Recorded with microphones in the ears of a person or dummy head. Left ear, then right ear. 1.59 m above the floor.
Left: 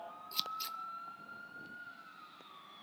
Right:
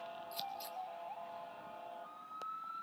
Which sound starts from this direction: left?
Scissors, at 0.3 s.